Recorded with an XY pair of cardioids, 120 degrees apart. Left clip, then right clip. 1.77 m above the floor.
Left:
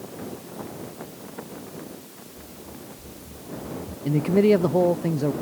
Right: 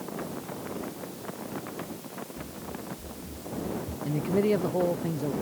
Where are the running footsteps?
20° right; by 4.0 s 15° right.